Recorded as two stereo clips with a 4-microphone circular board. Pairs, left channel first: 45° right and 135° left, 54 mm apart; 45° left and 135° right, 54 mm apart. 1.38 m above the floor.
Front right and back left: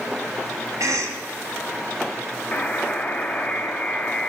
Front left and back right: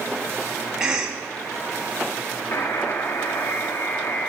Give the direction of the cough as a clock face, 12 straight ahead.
7 o'clock.